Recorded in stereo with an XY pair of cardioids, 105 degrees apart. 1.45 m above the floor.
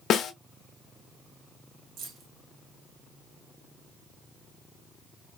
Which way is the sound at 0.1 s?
60° left.